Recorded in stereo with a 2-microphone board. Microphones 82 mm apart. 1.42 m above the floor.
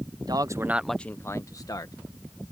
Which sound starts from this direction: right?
A man speaking, at 0.2 s.